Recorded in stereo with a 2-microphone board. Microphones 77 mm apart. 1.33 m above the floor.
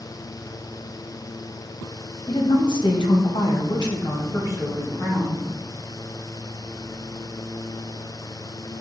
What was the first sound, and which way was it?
A woman speaking, 65° left (ahead or behind).